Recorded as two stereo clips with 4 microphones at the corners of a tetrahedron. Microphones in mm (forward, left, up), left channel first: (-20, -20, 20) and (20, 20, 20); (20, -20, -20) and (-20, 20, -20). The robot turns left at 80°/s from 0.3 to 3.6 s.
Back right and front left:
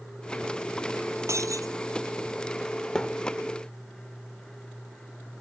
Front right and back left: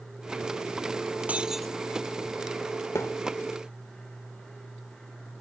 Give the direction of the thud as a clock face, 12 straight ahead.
2 o'clock.